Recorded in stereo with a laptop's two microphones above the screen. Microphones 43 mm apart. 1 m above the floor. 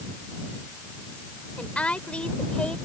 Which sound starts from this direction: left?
A woman speaking, at 1.6 s.